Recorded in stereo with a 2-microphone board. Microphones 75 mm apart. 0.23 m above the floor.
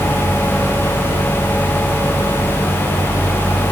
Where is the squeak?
No squeak in this recording.